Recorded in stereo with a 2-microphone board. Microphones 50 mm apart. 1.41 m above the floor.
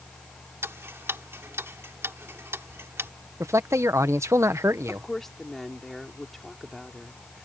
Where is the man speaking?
70° right (ahead or behind).